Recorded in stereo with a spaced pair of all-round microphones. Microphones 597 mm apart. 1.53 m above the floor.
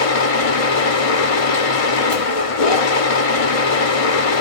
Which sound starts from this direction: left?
A machine running, at 0.0 s.